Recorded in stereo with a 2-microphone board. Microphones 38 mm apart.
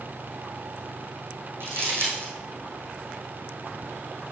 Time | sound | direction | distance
1.6 | crumpling | 65° right (ahead or behind) | 3 m